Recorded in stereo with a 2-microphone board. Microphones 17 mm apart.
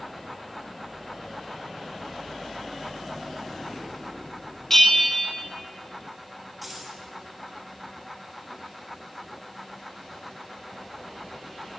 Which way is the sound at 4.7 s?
15° left (ahead or behind).